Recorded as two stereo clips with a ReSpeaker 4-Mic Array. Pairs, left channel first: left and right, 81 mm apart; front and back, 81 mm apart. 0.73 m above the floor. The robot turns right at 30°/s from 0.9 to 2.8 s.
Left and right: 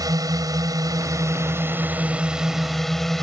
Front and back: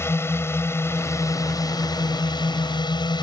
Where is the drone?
55° right; by 3.2 s 5° left.